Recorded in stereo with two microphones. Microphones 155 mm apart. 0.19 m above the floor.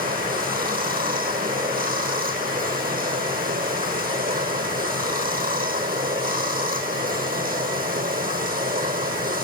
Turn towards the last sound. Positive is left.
turn(degrees=-70)  # may be behind; listen again after turning